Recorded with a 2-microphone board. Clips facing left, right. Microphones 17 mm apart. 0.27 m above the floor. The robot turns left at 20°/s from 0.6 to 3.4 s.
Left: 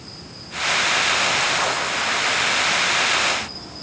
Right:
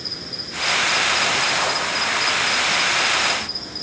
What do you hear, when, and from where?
0.0 s an insect: 85° right, 1.1 m; by 3.8 s 145° right, 1.1 m